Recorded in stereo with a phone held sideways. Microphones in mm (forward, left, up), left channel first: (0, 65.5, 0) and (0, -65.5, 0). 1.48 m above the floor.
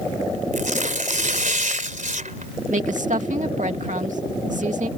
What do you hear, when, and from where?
0.5 s tearing paper: 75° right (ahead or behind)
2.7 s a woman speaking: 75° right (ahead or behind)